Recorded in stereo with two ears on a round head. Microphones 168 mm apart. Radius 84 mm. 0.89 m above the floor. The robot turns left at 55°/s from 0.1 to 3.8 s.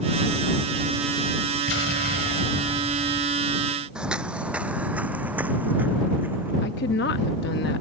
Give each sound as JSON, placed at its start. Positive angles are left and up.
{"t": 1.7, "sound": "an explosion", "azimuth_deg": 75}
{"t": 4.0, "sound": "footsteps", "side_deg": -5}
{"t": 6.6, "sound": "a woman speaking", "side_deg": 60}